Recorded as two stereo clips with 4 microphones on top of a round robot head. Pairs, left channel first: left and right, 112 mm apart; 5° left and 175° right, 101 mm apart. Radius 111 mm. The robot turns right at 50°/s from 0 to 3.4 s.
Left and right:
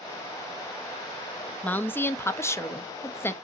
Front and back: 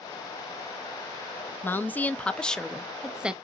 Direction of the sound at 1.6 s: 35° left.